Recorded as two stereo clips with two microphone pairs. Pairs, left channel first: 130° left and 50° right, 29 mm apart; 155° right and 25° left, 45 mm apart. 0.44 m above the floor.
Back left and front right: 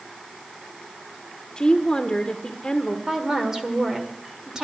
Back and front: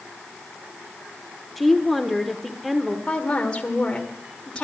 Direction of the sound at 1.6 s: 110° left.